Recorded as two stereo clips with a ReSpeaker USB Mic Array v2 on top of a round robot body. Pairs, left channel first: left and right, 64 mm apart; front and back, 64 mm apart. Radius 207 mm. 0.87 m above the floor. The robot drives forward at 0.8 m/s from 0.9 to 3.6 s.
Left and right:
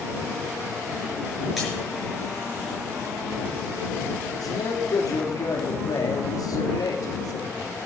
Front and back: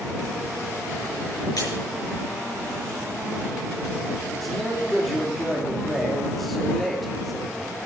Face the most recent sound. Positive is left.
turn(degrees=90)